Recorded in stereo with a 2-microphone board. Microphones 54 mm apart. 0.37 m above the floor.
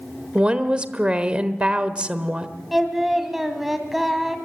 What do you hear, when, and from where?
0.3 s a woman speaking: 20° right (ahead or behind), 1.1 m
2.7 s singing: 5° right (ahead or behind), 1.9 m